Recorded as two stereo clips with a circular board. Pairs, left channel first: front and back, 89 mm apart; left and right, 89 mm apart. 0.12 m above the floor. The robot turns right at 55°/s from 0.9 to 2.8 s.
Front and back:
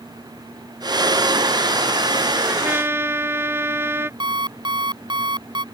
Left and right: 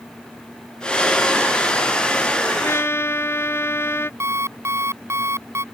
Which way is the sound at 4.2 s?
150° right.